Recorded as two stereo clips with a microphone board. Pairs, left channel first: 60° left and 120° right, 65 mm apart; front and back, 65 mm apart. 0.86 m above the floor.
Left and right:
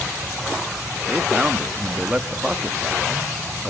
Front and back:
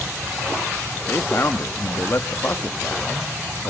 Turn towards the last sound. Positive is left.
turn(degrees=-45)